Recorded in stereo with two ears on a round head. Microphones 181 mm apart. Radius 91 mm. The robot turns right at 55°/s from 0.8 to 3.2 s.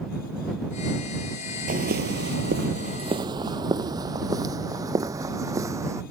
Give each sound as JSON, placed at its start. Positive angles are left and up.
{"t": 1.7, "sound": "footsteps", "side_deg": -45}